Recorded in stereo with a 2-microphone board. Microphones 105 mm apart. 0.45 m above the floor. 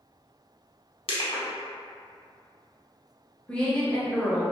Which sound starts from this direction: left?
Crushing, at 1.1 s.